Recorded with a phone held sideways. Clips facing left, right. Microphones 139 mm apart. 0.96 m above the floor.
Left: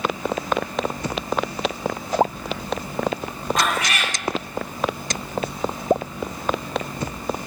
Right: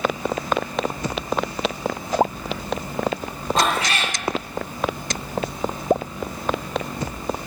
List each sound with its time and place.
3.6 s a cat meowing: 30° right (ahead or behind), 0.9 m